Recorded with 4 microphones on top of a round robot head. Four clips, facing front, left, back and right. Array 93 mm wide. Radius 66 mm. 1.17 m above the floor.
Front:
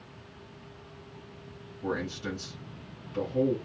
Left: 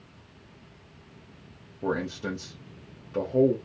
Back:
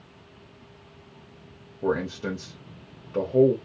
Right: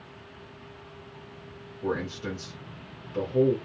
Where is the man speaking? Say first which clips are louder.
Left 1 dB, back 6 dB; 150° left, 0.8 m.